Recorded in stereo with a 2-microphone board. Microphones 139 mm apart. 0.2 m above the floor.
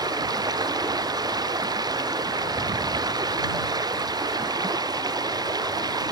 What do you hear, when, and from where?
0.0 s running water: 30° right (ahead or behind)